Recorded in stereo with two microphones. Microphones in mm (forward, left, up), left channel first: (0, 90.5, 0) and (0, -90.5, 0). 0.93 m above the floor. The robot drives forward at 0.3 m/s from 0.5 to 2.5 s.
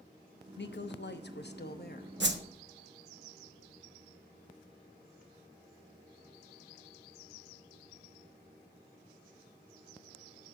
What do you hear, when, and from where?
0.6 s a woman speaking: 75° left (ahead or behind), 0.7 m; by 2.1 s 55° left (ahead or behind), 0.8 m
2.2 s a whoosh: 80° right, 0.7 m